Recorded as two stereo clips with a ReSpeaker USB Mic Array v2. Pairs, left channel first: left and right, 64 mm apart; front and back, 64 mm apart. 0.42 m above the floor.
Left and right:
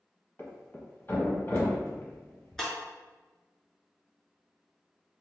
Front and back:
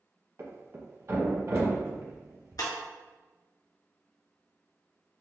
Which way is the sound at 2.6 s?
5° left.